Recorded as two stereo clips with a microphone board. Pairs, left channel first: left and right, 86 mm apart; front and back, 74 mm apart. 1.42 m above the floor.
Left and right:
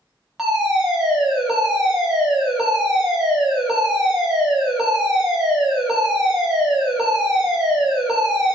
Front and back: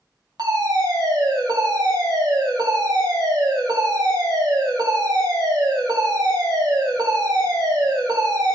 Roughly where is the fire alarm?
Behind.